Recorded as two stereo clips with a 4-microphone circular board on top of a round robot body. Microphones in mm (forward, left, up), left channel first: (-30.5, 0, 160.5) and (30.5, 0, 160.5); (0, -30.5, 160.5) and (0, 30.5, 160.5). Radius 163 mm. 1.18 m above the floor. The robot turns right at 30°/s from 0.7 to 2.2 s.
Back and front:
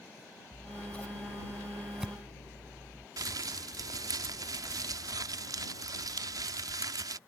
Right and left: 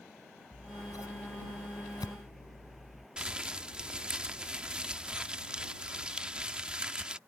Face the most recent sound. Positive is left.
turn(degrees=15)